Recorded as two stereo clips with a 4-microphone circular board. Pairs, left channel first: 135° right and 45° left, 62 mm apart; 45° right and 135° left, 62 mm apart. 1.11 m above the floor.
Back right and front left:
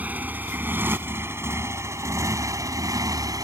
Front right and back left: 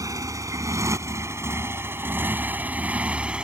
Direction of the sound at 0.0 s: 110° left.